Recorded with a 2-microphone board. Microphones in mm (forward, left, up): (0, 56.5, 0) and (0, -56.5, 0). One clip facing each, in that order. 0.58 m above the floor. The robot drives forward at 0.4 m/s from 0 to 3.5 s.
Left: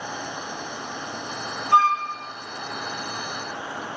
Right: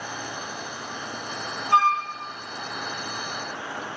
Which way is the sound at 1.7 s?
25° right (ahead or behind).